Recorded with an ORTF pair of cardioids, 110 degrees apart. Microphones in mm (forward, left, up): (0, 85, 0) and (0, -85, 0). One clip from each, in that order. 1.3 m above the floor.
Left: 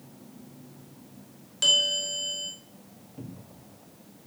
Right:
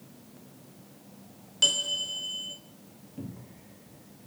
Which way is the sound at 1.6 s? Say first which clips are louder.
Left 3 dB; 10° right.